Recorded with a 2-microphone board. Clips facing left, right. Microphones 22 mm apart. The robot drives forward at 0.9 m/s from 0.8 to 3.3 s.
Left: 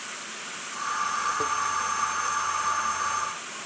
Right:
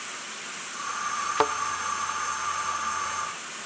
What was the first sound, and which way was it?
A thud, 65° right (ahead or behind).